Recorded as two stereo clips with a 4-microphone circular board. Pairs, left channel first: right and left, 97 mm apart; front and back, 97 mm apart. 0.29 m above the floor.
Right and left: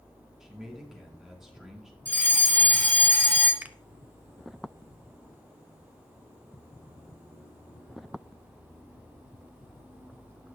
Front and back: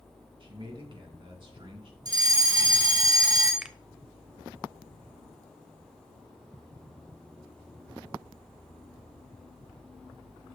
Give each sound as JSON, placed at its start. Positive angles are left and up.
{"t": 0.4, "sound": "a man speaking", "azimuth_deg": 175, "distance_m": 3.0}
{"t": 2.0, "sound": "a fire alarm", "azimuth_deg": -155, "distance_m": 3.0}
{"t": 3.6, "sound": "a finger snap", "azimuth_deg": 115, "distance_m": 0.7}